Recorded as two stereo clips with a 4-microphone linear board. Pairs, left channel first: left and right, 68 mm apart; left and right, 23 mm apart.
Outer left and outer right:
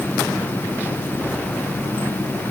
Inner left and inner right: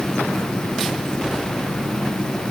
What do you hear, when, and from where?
Only background noise.